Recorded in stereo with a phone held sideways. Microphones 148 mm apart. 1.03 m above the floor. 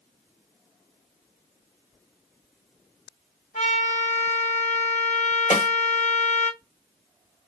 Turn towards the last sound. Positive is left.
turn(degrees=60)  # may be behind; listen again after turning